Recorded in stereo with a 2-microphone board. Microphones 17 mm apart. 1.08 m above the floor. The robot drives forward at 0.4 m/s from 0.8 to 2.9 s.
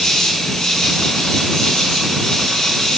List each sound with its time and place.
0.0 s an insect: 70° left (ahead or behind), 2.5 m; by 3.0 s 60° left (ahead or behind), 3 m